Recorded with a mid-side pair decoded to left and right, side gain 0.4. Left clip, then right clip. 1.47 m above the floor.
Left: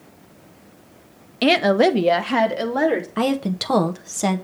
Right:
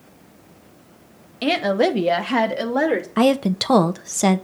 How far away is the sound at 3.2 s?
About 0.7 m.